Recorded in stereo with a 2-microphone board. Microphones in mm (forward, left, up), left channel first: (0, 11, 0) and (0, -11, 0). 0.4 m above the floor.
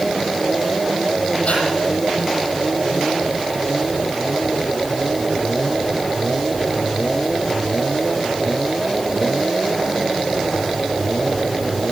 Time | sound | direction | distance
1.4 | breathing | 60° left (ahead or behind) | 10 m